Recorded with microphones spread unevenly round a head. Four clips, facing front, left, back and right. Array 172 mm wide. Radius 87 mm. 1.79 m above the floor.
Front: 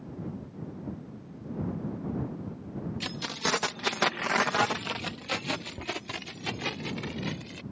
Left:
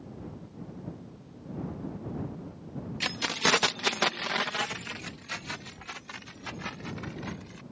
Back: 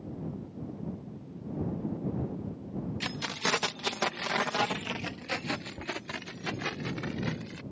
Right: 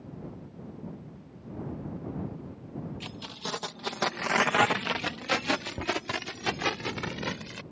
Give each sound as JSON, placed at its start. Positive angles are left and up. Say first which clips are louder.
{"t": 3.0, "sound": "keys jangling", "louder": "left 9 dB, front 2 dB", "azimuth_deg": 80}